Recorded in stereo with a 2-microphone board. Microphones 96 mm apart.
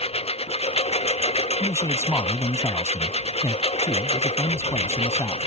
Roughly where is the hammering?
No hammering in this recording.